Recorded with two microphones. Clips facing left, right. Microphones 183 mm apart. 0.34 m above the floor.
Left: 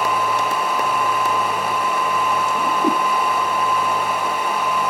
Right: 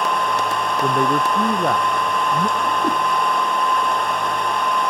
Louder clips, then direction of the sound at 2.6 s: Left 2 dB; 15° left (ahead or behind).